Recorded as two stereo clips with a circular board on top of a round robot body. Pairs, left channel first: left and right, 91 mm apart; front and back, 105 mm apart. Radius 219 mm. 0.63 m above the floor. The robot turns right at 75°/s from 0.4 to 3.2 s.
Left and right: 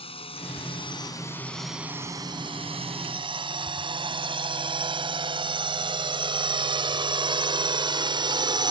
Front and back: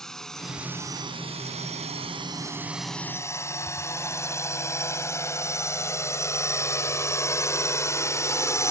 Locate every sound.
0.0 s a drone: 85° left; by 8.7 s 60° right